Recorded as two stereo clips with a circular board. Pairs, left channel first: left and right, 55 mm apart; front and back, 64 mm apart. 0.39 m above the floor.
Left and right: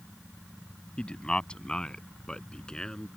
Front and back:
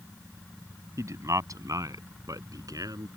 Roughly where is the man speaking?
Behind.